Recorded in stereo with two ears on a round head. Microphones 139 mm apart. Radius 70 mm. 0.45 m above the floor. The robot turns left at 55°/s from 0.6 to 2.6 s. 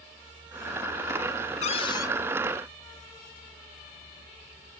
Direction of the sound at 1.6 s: 45° left (ahead or behind).